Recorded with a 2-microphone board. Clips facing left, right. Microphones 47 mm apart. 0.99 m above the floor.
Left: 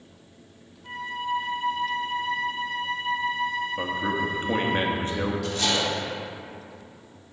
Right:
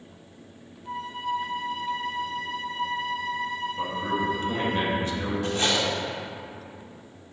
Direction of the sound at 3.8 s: 35° left (ahead or behind).